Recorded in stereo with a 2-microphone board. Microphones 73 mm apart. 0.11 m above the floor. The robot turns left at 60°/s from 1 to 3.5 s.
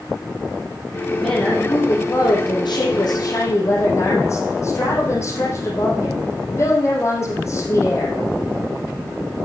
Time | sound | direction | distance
1.2 | a woman speaking | straight behind | 3.5 m